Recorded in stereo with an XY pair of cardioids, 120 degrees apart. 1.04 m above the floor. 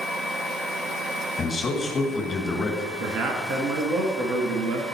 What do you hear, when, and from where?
1.4 s a man speaking: 35° left, 1.6 m
3.0 s a man speaking: 65° right, 2 m